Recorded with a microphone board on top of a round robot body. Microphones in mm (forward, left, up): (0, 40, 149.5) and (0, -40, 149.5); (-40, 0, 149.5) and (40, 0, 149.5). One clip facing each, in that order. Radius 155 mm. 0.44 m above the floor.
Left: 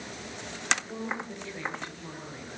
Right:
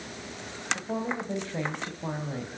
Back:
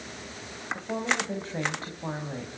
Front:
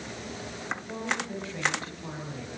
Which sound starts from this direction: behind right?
A woman speaking, at 0.7 s.